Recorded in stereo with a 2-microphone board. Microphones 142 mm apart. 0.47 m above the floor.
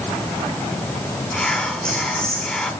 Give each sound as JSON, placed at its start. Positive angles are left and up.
{"t": 1.3, "sound": "whispering", "side_deg": 5, "distance_m": 1.3}